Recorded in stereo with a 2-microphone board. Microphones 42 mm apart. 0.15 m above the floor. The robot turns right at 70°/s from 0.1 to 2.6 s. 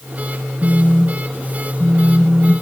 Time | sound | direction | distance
0.6 | a phone buzzing | 20° left (ahead or behind) | 0.7 m